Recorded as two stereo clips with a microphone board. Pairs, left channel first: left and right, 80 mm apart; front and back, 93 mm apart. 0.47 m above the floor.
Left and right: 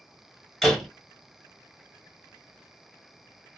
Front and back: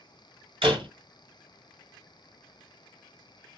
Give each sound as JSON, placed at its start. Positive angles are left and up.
{"t": 0.6, "sound": "a door slam", "azimuth_deg": 175, "distance_m": 1.6}